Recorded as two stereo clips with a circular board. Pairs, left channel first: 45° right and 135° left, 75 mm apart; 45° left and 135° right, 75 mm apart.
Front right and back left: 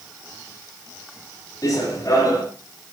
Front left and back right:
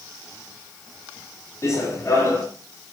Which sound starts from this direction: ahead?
Running footsteps, at 1.6 s.